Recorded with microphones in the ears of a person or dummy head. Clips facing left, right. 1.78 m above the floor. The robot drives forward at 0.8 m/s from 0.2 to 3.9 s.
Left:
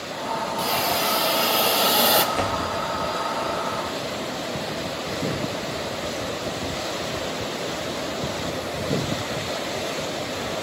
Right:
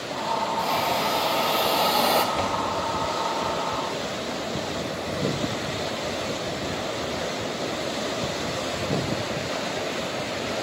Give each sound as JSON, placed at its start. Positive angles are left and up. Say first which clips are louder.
{"t": 0.6, "sound": "a hiss", "louder": "left 2 dB", "side_deg": 5, "distance_m": 1.8}
{"t": 2.4, "sound": "a door slam", "louder": "left 1 dB", "side_deg": 15, "distance_m": 0.6}